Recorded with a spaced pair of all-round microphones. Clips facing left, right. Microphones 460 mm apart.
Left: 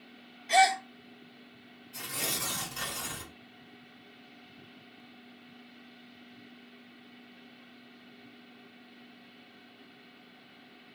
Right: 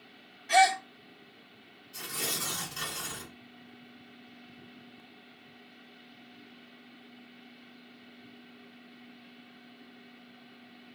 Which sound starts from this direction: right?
A gasp, at 0.5 s.